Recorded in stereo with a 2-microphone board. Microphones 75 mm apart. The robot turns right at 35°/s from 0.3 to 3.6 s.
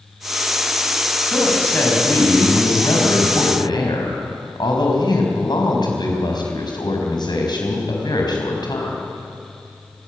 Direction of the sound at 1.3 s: 5° left.